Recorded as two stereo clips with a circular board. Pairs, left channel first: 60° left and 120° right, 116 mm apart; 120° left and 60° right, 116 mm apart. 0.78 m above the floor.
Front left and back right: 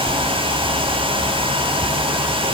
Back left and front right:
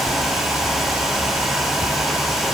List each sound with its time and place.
Only background noise.